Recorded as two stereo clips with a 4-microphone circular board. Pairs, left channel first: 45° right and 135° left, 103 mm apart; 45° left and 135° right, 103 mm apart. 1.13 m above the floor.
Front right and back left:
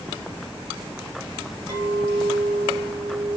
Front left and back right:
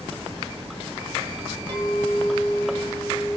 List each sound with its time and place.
1.7 s a clink: 175° right, 1.1 m